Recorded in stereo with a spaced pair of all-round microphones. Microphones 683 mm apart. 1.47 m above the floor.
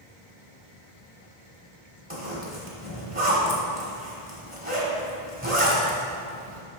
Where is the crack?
I don't hear a crack.